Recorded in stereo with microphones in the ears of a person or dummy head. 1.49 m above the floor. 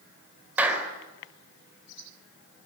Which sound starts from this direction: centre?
A clap, at 0.6 s.